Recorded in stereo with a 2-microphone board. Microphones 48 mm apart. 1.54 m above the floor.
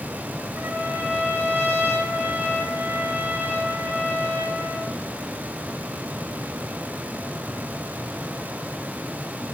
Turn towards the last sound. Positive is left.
turn(degrees=-50)  # may be behind; listen again after turning